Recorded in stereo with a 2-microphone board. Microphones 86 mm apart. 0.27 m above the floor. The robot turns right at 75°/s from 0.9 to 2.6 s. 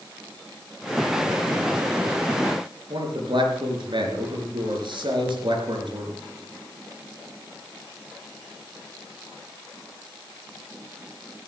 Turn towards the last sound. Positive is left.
turn(degrees=-70)  # may be behind; listen again after turning